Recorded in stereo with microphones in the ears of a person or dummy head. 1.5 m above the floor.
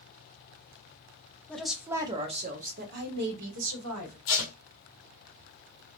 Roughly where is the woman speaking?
Centre.